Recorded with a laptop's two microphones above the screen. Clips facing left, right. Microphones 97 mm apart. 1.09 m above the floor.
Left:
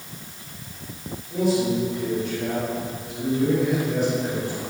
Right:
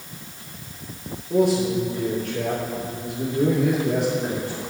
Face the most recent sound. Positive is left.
turn(degrees=-65)  # may be behind; listen again after turning